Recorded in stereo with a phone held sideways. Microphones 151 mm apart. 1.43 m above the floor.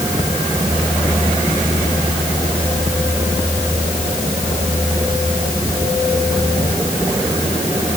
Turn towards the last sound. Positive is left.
No sound to turn to.